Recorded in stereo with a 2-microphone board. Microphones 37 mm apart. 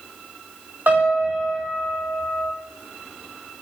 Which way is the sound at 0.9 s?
60° right (ahead or behind).